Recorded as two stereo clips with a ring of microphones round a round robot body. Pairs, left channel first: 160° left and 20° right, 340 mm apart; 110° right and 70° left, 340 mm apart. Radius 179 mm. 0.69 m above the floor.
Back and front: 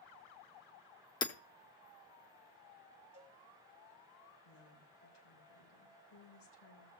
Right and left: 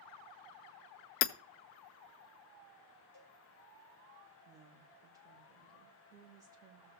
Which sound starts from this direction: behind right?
Hammering, at 1.2 s.